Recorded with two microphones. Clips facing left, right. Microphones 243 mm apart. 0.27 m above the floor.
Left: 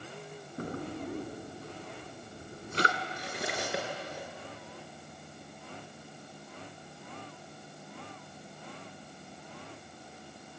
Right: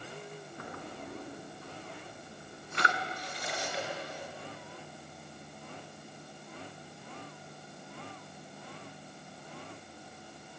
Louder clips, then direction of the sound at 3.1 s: Left 3 dB; 70° left (ahead or behind).